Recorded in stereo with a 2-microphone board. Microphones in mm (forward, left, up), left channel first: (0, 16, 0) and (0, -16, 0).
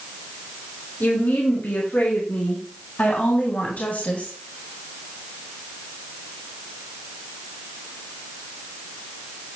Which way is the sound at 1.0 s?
65° left (ahead or behind).